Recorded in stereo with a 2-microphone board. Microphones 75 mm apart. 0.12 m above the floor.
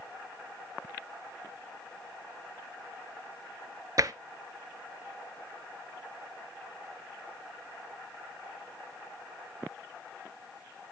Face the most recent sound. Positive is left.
turn(degrees=-50)  # may be behind; listen again after turning